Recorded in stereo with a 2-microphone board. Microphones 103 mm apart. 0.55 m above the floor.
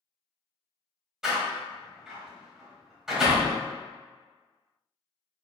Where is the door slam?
5° right (ahead or behind), 1.7 m.